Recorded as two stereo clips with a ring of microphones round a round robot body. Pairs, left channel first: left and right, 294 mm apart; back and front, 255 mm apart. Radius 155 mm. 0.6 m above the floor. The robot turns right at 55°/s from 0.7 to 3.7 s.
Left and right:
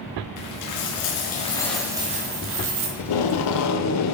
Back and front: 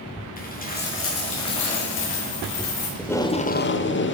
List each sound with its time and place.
0.4 s a dropped coin: 120° left, 3.5 m; by 2.9 s 120° right, 3.5 m
3.0 s tape being pulled: 90° left, 1.0 m; by 4.1 s 130° left, 1.0 m